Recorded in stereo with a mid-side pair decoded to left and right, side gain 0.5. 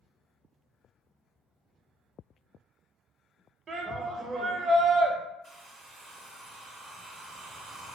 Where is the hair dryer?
25° right, 0.6 m.